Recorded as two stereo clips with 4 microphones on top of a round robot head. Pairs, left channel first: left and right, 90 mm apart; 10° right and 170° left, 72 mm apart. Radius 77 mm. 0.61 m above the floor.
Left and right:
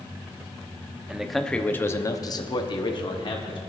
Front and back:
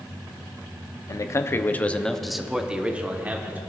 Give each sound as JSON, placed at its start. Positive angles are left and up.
{"t": 1.1, "sound": "a man speaking", "azimuth_deg": -10, "distance_m": 1.1}